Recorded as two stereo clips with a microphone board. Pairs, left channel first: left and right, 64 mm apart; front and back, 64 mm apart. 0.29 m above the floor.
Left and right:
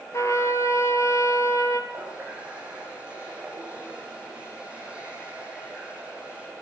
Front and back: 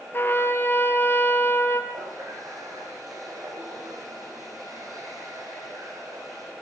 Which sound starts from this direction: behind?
A running tap, at 1.9 s.